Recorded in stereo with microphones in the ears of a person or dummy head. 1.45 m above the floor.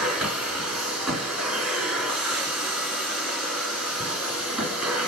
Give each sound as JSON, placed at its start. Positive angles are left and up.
{"t": 0.0, "sound": "a machine running", "side_deg": -5, "distance_m": 2.5}